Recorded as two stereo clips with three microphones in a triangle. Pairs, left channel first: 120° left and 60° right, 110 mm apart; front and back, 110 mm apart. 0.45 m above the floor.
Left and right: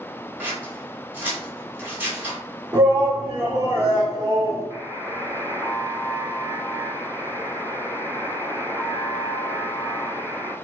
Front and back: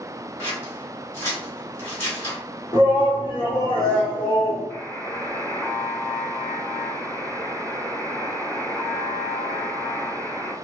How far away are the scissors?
About 1.3 m.